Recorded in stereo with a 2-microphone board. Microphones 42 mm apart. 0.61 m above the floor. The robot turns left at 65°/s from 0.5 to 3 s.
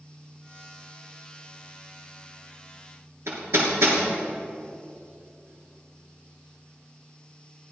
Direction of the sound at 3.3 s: 85° right.